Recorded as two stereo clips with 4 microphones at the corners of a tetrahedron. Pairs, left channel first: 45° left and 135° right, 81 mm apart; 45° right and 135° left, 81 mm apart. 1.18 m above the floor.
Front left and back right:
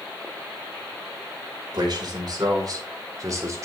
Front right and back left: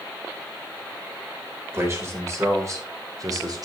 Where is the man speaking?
165° right, 4.5 m; by 3.7 s 175° left, 3.5 m.